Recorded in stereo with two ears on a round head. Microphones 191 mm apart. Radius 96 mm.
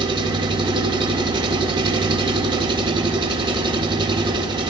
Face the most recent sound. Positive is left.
turn(degrees=-25)  # may be behind; listen again after turning